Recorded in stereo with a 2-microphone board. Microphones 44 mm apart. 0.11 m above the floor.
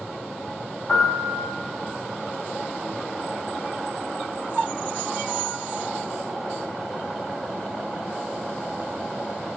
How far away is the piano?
About 5 m.